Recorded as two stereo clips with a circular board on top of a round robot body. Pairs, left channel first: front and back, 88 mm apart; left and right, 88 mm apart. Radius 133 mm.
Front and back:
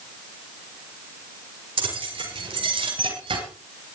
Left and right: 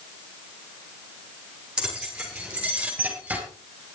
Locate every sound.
1.8 s keys jangling: 170° right, 7.5 m; by 3.4 s 165° right, 7 m